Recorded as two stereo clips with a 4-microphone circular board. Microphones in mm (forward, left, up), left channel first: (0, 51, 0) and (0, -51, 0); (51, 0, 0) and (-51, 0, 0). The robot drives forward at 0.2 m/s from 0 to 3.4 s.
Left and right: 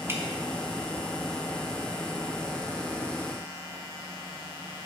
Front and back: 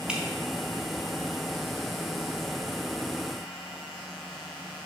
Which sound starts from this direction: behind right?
Dripping, at 0.1 s.